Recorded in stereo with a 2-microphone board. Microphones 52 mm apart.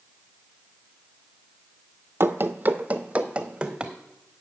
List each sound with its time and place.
2.2 s running footsteps: 50° right (ahead or behind), 0.5 m; by 3.9 s 15° right (ahead or behind), 1.2 m